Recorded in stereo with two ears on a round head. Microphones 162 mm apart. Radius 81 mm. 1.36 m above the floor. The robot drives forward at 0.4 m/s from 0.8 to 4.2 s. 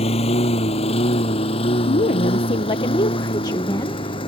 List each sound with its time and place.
0.0 s a lawn mower: 35° left (ahead or behind); by 4.3 s 30° left (ahead or behind)
1.9 s a woman speaking: 45° left (ahead or behind); by 4.3 s 20° left (ahead or behind)